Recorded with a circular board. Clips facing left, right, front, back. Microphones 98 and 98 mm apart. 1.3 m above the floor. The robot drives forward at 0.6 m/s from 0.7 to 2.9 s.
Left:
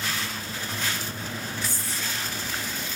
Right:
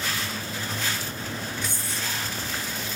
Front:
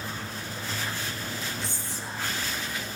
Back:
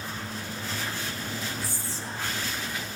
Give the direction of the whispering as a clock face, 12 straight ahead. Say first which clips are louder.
Right 1 dB, even; 2 o'clock.